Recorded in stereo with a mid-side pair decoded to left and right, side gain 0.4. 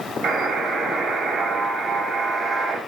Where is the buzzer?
70° right, 2.5 m.